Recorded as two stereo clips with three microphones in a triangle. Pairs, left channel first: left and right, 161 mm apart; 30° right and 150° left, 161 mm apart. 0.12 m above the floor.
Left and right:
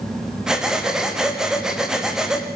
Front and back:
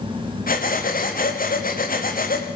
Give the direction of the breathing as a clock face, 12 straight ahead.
12 o'clock.